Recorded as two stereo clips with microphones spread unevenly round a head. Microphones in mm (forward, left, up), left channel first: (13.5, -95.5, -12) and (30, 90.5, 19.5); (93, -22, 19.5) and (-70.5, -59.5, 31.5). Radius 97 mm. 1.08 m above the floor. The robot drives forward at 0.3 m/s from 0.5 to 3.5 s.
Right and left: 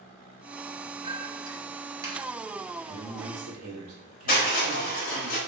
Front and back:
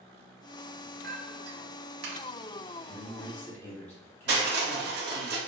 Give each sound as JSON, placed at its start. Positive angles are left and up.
{"t": 1.0, "sound": "a clink", "azimuth_deg": 150, "distance_m": 0.6}
{"t": 2.9, "sound": "a man speaking", "azimuth_deg": 85, "distance_m": 1.3}
{"t": 4.3, "sound": "crushing", "azimuth_deg": -145, "distance_m": 1.2}